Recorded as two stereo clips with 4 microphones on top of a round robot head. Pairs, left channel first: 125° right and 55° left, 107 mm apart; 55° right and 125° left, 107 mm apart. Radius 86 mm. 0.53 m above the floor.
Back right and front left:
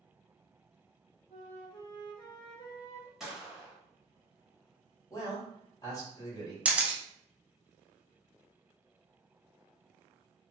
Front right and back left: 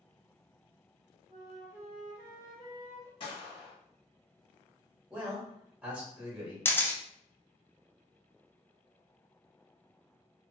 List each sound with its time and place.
1.3 s a flute: 170° right, 0.9 m
3.2 s a gunshot: 30° right, 1.4 m
5.1 s a man speaking: 160° right, 1.6 m
6.7 s a camera shutter: 10° right, 0.6 m